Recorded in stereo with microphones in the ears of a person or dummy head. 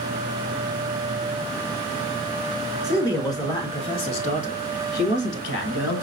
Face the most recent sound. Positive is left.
turn(degrees=80)